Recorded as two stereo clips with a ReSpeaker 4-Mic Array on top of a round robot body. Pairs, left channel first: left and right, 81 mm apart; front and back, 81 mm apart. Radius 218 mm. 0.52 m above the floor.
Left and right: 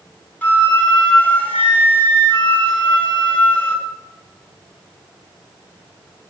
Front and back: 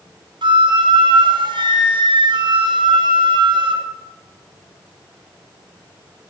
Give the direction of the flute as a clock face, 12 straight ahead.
7 o'clock.